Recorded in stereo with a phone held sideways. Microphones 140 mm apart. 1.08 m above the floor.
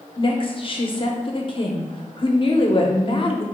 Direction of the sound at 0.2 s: 40° left (ahead or behind).